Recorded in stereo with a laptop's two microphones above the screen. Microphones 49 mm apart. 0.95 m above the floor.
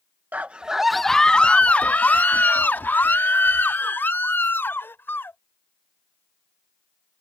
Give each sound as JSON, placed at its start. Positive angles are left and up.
{"t": 0.3, "sound": "a scream", "side_deg": -35}